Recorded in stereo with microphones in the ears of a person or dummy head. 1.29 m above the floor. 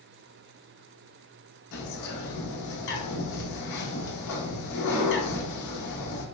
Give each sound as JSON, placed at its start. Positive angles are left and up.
{"t": 1.7, "sound": "a bird", "side_deg": 65, "distance_m": 0.9}